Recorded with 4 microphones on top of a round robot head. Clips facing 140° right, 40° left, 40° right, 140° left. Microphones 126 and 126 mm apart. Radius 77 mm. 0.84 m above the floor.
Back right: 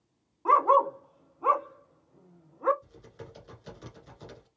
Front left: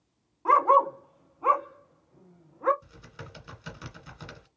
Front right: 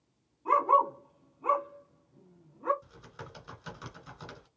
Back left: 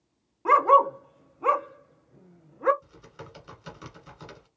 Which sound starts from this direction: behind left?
A dog barking, at 0.5 s.